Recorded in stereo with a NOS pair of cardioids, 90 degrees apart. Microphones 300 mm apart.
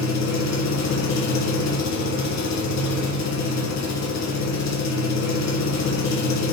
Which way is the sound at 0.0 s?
60° left.